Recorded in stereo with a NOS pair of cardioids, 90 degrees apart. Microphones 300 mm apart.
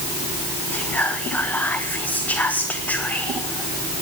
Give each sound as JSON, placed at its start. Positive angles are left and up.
{"t": 0.7, "sound": "whispering", "azimuth_deg": 5, "distance_m": 0.5}